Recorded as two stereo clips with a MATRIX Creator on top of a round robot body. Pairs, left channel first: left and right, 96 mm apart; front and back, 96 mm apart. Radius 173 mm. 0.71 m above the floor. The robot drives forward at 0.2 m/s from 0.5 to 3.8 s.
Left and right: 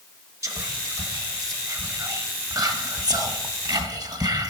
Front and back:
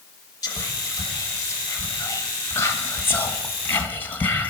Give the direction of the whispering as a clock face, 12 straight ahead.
1 o'clock.